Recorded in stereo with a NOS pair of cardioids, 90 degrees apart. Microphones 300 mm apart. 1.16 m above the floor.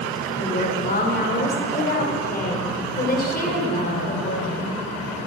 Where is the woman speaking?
30° left, 3.5 m.